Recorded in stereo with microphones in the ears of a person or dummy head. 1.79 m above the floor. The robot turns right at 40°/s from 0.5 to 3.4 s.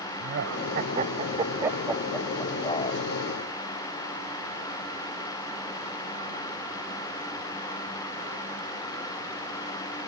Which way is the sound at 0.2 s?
60° right (ahead or behind).